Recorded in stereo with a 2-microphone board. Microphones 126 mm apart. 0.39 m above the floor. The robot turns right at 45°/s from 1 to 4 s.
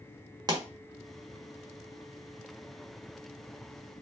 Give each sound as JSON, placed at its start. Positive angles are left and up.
{"t": 0.5, "sound": "a pop", "side_deg": -30, "distance_m": 1.4}